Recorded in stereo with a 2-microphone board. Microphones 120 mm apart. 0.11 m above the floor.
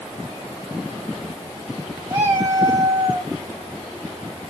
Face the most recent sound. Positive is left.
turn(degrees=-20)  # may be behind; listen again after turning